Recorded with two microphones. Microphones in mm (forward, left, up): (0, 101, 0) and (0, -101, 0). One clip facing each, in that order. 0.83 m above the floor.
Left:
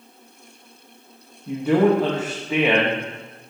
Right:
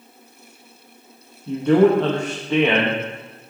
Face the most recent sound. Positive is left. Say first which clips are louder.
# right 3 dB
turn(degrees=5)  # may be behind; listen again after turning